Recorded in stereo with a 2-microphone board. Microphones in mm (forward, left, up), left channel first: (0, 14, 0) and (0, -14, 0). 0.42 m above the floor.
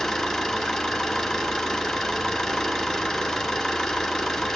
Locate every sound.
0.0 s an engine running: 5° left (ahead or behind), 3 m